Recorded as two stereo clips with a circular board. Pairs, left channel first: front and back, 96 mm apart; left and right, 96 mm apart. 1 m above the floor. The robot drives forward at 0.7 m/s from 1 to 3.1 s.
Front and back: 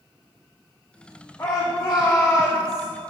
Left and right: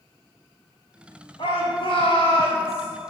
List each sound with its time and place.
1.4 s a shout: 70° left, 3.5 m; by 2.9 s 90° left, 3 m